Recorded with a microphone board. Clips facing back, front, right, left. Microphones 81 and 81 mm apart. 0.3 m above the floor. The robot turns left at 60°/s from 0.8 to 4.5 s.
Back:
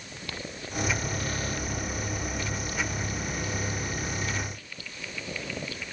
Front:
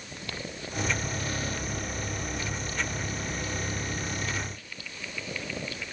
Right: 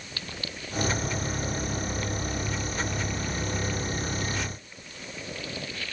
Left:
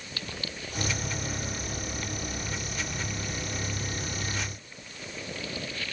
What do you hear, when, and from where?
Only background noise.